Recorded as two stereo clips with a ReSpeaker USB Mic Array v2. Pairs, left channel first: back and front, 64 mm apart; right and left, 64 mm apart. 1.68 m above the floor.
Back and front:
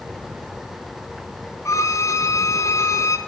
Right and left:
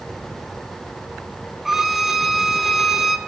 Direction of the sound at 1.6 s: 175° left.